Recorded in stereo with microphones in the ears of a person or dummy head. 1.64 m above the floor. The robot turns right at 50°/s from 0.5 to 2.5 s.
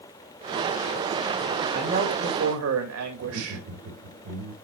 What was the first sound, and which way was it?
A man speaking, 150° right.